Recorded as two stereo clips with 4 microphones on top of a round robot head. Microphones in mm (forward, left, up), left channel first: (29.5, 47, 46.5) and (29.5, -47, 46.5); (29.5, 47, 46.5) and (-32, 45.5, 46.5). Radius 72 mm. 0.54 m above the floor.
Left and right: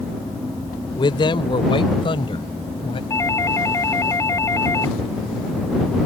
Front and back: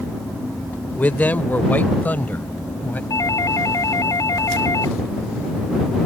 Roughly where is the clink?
No clink in this recording.